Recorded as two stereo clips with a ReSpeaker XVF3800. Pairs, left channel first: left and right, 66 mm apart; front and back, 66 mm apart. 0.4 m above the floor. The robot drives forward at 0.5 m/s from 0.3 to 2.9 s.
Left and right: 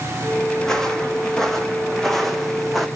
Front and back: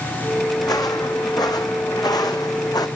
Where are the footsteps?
10° left, 1.6 m; by 2.9 s straight ahead, 1.7 m.